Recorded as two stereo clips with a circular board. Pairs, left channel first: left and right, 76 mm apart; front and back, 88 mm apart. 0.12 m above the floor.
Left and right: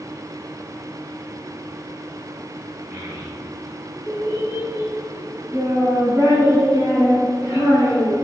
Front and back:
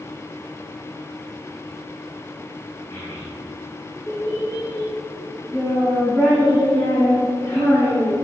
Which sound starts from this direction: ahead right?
A child speaking, at 2.9 s.